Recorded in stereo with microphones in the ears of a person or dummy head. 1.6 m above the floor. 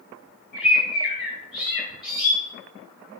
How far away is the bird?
About 2.5 m.